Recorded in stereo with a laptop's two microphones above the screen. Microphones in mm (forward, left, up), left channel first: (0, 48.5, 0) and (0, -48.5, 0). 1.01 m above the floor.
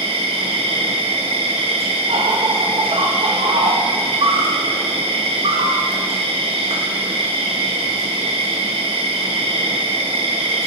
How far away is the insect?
About 0.8 m.